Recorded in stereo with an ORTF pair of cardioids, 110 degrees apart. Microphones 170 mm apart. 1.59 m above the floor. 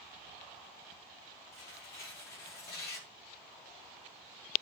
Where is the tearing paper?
70° left, 8 m.